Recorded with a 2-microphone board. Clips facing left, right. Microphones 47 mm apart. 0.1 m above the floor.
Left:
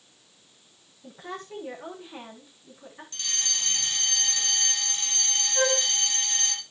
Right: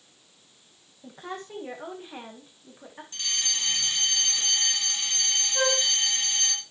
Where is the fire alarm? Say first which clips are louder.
Right 2 dB; 30° right (ahead or behind), 4 m.